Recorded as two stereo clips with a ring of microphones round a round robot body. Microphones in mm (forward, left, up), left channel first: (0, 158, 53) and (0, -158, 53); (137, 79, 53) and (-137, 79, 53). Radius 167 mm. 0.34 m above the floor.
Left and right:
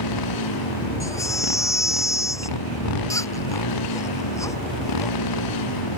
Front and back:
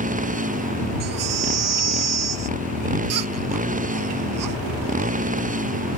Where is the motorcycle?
115° left.